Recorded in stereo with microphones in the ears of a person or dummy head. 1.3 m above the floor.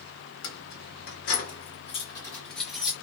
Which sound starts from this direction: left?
Keys jangling, at 0.4 s.